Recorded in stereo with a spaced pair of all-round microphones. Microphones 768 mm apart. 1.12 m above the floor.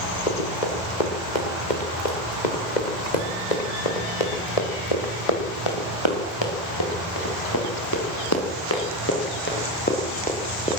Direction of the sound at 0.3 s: 80° left.